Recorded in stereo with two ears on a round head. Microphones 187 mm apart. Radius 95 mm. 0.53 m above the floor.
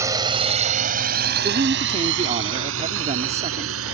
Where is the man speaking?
35° right (ahead or behind).